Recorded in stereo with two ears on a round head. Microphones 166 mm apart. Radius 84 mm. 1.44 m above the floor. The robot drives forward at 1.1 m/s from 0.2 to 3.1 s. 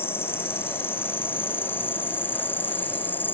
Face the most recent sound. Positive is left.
turn(degrees=10)  # may be behind; listen again after turning